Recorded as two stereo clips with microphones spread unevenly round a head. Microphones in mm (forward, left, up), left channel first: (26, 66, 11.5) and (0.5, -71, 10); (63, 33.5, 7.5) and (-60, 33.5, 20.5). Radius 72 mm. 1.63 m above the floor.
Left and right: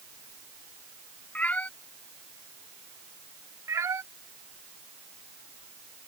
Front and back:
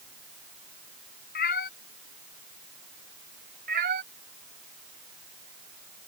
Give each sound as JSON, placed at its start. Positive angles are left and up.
{"t": 1.4, "sound": "a cat meowing", "azimuth_deg": 0}
{"t": 3.7, "sound": "a cat meowing", "azimuth_deg": -175}